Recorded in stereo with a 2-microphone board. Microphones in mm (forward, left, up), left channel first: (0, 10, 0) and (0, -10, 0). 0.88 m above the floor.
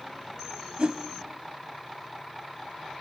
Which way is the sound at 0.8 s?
65° right (ahead or behind).